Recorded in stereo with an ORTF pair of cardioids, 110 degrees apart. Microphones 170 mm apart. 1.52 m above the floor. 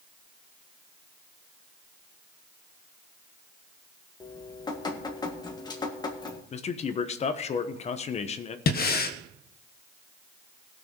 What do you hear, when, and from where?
4.2 s dripping: 25° left, 1.7 m
6.5 s a man speaking: 40° left, 1.1 m
8.7 s breathing: 65° left, 1.0 m